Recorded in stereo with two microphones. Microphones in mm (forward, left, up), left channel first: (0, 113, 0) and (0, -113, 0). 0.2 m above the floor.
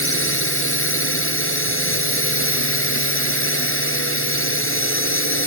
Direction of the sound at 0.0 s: 65° left (ahead or behind).